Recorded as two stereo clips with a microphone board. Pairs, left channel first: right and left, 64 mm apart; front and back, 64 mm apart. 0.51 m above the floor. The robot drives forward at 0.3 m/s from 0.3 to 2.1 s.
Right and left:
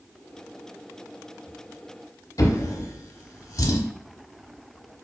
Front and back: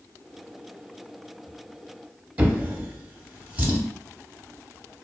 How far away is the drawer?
About 0.8 m.